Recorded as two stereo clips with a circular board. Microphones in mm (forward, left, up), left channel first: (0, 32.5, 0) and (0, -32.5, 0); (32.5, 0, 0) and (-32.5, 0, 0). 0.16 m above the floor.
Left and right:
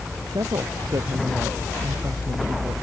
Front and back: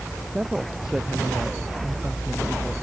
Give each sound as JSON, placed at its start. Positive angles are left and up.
{"t": 0.3, "sound": "a woman speaking", "azimuth_deg": -100}